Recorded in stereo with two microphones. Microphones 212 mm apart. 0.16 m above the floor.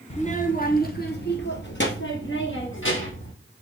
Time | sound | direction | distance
0.1 | a child speaking | 30° left (ahead or behind) | 1.2 m